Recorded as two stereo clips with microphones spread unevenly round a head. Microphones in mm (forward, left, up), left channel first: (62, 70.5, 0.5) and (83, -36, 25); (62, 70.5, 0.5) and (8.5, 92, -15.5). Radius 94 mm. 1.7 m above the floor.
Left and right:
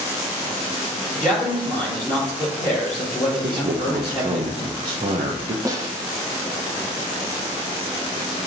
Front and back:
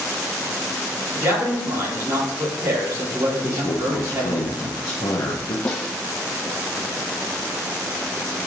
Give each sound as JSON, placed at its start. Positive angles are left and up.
{"t": 1.1, "sound": "a man speaking", "azimuth_deg": -155, "distance_m": 4.0}
{"t": 3.4, "sound": "a man speaking", "azimuth_deg": -60, "distance_m": 0.9}
{"t": 5.7, "sound": "a snare drum", "azimuth_deg": -60, "distance_m": 1.0}